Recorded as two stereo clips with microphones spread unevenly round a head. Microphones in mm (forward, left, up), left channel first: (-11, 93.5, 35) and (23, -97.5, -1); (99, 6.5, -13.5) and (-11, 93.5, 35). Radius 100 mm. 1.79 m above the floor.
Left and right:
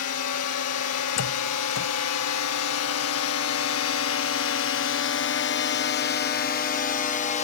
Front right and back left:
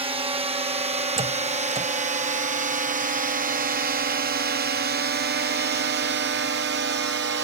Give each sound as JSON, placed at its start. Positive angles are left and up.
{"t": 0.0, "sound": "a drone", "azimuth_deg": 90}
{"t": 1.2, "sound": "a door slam", "azimuth_deg": 100}